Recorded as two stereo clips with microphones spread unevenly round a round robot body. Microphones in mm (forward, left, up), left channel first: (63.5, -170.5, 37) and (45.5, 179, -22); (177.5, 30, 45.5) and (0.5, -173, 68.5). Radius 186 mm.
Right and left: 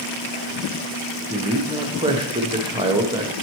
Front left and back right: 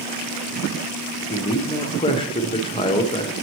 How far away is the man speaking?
About 0.9 m.